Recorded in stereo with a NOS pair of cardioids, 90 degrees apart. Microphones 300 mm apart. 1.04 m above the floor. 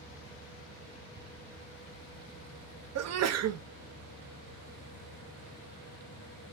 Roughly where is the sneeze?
Ahead right.